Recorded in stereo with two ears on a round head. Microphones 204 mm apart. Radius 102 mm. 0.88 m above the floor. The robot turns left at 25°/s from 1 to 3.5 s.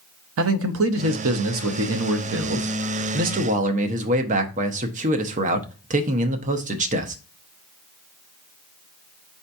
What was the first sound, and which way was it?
A man speaking, 80° right.